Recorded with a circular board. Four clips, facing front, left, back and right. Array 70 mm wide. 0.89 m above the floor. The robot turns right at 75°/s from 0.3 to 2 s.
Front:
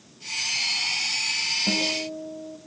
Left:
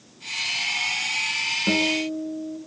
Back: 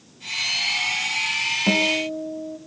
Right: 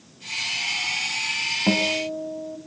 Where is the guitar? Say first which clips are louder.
Even, back 7 dB; 130° right, 2 m; by 2.6 s 100° right, 2 m.